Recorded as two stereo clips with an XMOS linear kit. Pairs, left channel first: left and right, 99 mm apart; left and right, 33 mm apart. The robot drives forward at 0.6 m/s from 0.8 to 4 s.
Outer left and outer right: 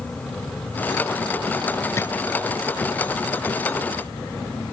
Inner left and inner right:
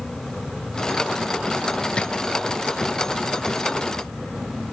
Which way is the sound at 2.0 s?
30° left (ahead or behind).